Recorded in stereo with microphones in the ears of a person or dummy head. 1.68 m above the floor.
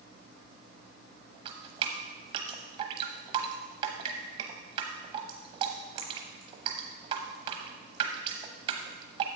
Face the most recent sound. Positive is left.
turn(degrees=-35)  # may be behind; listen again after turning